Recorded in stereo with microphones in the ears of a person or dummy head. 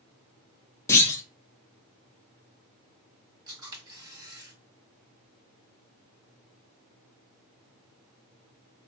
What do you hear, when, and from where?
0.9 s a clunk: 15° left (ahead or behind), 0.8 m
3.5 s a camera shutter: 25° right (ahead or behind), 2.0 m